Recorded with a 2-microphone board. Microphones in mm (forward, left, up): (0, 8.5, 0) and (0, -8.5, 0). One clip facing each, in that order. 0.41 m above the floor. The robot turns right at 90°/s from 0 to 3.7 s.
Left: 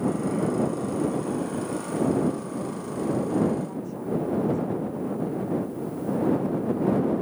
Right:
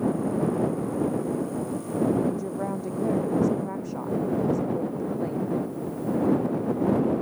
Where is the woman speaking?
165° right; by 5.5 s 35° right.